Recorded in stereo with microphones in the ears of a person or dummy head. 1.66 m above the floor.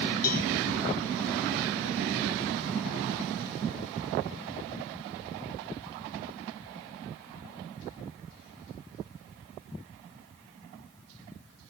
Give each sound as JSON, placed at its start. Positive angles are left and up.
{"t": 0.2, "sound": "a cowbell", "side_deg": 55, "distance_m": 5.0}